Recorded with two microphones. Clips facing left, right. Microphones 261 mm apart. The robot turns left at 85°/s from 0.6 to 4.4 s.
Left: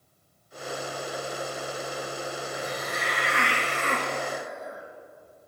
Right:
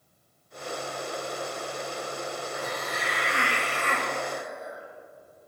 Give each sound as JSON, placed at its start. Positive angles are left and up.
{"t": 2.5, "sound": "a hiss", "azimuth_deg": 160, "distance_m": 2.5}